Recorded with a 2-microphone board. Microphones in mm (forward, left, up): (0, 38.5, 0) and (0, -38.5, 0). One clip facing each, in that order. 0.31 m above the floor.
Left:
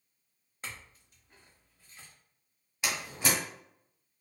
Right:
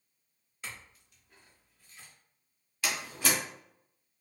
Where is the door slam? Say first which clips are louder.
Even; 20° left (ahead or behind), 1.1 m.